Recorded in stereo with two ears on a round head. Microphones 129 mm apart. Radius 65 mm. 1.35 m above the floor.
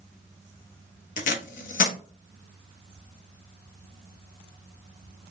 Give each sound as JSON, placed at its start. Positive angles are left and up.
{"t": 1.2, "sound": "tape being pulled", "side_deg": 60, "distance_m": 0.9}